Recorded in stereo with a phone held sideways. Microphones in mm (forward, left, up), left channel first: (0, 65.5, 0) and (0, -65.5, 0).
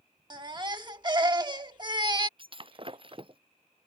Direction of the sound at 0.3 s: 35° right (ahead or behind).